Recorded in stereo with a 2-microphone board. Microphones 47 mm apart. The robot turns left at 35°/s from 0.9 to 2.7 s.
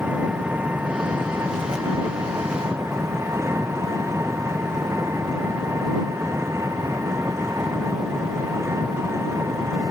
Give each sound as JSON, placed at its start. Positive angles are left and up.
{"t": 0.0, "sound": "an engine running", "azimuth_deg": -40}